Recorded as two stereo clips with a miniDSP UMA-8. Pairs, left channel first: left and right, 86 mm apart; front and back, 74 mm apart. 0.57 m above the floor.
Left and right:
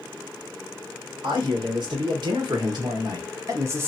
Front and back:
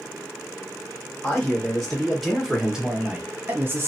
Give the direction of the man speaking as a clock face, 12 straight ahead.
3 o'clock.